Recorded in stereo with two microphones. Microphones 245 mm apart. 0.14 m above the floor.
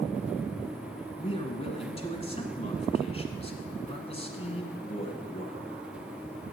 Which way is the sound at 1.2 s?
25° left (ahead or behind).